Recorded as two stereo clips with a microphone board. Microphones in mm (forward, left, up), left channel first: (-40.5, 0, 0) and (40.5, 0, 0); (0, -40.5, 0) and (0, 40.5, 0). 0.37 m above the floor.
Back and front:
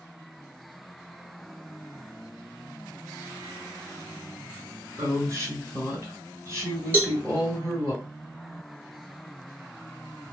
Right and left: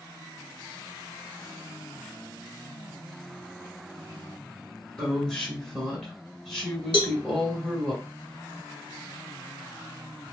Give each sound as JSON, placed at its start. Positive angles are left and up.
{"t": 5.0, "sound": "a woman speaking", "azimuth_deg": -10, "distance_m": 1.7}
{"t": 6.9, "sound": "a cowbell", "azimuth_deg": -65, "distance_m": 0.5}